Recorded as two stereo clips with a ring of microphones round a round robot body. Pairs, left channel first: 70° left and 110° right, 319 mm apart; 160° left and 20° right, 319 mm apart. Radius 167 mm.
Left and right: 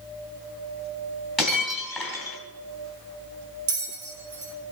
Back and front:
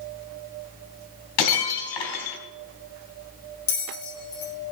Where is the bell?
155° right, 3.5 m.